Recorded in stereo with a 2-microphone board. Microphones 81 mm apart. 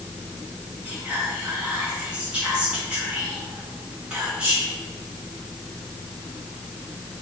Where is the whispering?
15° right (ahead or behind), 1.7 m.